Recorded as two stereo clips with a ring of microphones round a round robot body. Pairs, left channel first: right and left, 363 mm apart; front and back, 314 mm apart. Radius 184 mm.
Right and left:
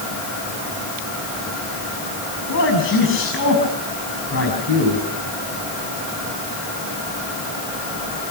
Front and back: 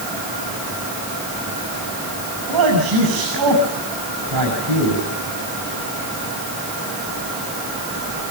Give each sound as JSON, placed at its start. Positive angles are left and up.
{"t": 2.5, "sound": "a man speaking", "azimuth_deg": -150, "distance_m": 7.0}